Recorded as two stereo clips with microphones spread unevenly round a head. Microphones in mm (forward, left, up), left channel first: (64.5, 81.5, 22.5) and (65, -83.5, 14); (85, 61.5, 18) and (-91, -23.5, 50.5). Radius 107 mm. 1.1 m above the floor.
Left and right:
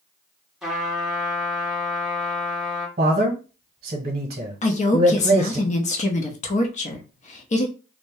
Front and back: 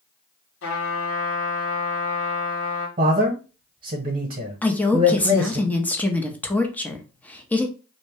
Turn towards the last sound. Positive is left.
turn(degrees=90)